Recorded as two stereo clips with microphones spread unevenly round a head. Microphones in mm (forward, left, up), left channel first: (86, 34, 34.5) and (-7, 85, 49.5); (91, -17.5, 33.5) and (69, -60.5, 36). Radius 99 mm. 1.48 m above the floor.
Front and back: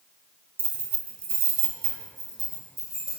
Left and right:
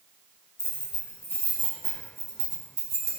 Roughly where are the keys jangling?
Behind left.